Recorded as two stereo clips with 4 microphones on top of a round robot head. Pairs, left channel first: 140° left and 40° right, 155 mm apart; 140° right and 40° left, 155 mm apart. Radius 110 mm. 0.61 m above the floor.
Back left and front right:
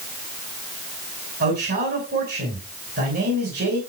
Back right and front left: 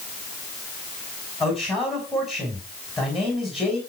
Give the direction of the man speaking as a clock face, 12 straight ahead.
2 o'clock.